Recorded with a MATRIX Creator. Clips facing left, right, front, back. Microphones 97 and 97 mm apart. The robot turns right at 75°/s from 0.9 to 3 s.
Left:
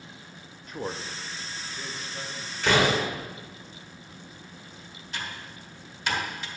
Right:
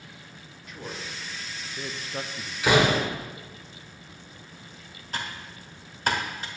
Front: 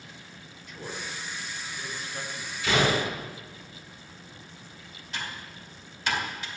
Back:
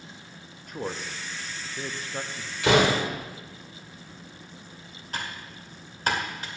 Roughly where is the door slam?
Behind.